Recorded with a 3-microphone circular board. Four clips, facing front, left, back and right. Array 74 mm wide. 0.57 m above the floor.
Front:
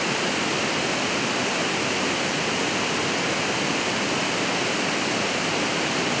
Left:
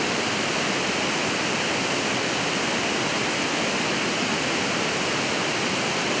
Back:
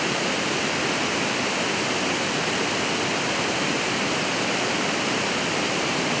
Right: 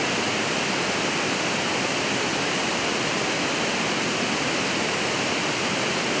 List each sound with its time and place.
Only background noise.